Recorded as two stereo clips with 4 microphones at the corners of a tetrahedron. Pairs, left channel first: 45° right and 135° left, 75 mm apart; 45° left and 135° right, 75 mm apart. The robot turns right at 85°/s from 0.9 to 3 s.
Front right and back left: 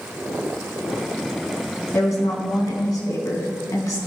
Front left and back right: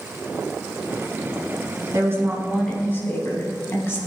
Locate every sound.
1.9 s a woman speaking: 100° right, 4.5 m; by 4.0 s 5° right, 4.5 m